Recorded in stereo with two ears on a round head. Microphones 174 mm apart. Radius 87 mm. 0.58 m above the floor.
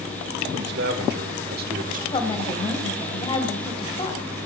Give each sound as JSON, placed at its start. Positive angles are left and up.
{"t": 0.5, "sound": "a man speaking", "side_deg": -60, "distance_m": 2.5}
{"t": 2.1, "sound": "a woman speaking", "side_deg": 25, "distance_m": 2.5}